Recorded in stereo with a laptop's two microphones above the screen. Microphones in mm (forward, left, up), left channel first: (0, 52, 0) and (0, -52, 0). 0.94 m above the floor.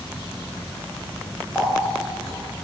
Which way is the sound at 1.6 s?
5° right (ahead or behind).